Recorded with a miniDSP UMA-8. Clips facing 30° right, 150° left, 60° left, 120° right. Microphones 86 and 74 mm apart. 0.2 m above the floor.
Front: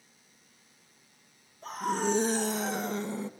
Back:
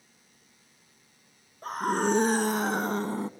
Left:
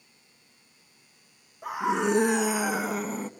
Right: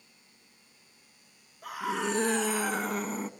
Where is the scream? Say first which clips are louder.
Back 3 dB, left 6 dB; 125° left, 2 m; by 3.3 s 155° left, 1.3 m.